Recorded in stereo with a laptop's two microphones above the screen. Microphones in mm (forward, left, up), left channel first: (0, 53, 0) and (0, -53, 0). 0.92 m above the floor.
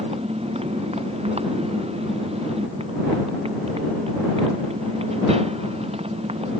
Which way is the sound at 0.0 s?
75° right (ahead or behind).